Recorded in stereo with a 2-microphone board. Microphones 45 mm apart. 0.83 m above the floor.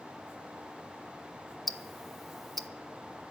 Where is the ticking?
Centre (ahead or behind), 0.6 m.